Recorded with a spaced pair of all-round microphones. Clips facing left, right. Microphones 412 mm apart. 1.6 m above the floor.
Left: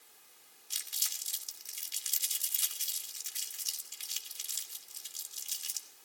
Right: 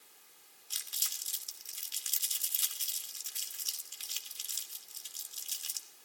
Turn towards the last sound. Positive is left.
turn(degrees=35)  # may be behind; listen again after turning